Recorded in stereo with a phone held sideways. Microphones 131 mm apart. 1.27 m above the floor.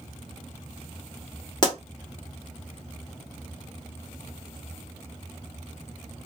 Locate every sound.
1.6 s a pop: 35° left (ahead or behind), 1.7 m